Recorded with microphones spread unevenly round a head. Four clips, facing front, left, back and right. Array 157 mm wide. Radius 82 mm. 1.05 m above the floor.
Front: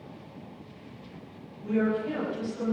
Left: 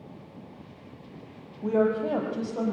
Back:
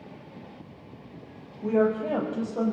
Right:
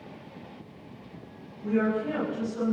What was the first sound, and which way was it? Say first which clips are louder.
A woman speaking: left 2 dB, back 3 dB; 130° left.